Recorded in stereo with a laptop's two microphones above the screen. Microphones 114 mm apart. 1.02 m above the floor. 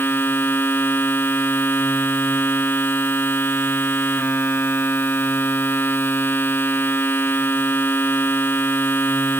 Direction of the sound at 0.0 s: 15° left (ahead or behind).